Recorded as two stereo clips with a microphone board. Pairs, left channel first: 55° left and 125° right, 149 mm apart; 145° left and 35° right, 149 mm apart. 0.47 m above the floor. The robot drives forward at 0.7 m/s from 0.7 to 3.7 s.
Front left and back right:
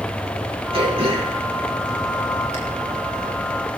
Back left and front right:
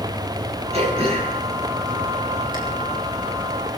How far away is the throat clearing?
About 5 m.